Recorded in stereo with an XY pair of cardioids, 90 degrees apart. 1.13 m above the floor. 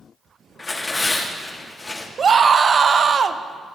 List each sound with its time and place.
0.6 s tearing paper: 30° left, 2 m
2.2 s a scream: 50° right, 0.8 m